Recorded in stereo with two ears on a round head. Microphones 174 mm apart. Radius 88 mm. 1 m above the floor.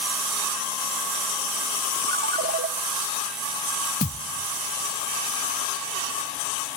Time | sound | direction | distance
2.1 | a ringtone | 45° right (ahead or behind) | 0.9 m
4.0 | a thud | 40° left (ahead or behind) | 1.0 m